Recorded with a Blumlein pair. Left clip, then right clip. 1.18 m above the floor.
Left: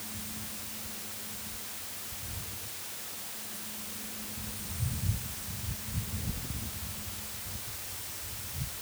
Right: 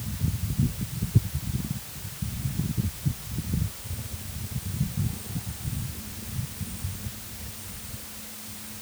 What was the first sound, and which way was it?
Only background noise.